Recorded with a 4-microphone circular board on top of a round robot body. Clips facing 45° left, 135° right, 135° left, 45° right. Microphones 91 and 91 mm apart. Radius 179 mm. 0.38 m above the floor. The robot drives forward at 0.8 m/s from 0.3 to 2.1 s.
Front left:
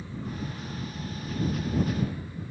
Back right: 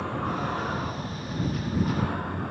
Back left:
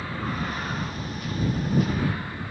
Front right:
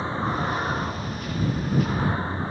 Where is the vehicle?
105° right.